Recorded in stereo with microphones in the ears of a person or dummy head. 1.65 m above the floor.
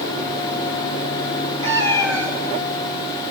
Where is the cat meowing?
15° right (ahead or behind), 1.7 m.